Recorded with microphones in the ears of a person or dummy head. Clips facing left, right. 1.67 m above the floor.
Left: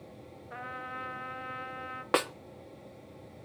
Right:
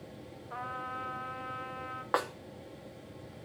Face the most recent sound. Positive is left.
turn(degrees=40)  # may be behind; listen again after turning